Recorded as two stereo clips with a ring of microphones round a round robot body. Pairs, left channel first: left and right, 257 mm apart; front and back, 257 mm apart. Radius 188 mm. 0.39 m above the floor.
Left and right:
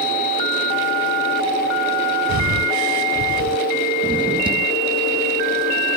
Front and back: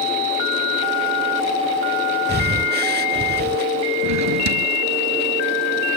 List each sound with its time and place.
2.3 s breathing: 125° right
4.0 s a drawer: 165° right